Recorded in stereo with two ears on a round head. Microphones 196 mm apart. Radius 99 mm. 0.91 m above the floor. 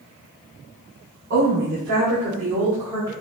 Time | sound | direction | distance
1.3 | a woman speaking | 50° right (ahead or behind) | 3.5 m